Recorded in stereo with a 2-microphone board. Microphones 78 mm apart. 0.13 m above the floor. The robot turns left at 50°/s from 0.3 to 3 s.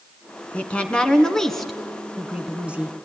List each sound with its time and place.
0.5 s a woman speaking: 20° left (ahead or behind), 1.3 m; by 3.0 s 20° right (ahead or behind), 1.3 m